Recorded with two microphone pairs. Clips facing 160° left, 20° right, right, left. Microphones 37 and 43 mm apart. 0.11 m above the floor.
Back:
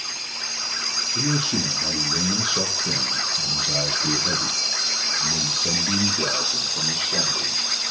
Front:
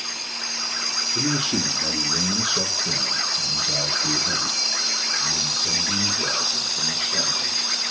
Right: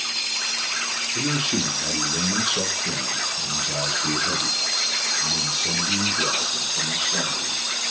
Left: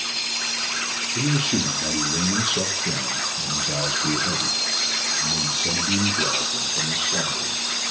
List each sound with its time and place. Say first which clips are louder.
1.1 s a man speaking: even, left 2 dB; 5° right, 1.8 m; by 7.7 s 165° left, 3.5 m